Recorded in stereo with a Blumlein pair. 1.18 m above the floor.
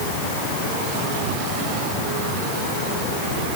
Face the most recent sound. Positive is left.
No sound to turn to.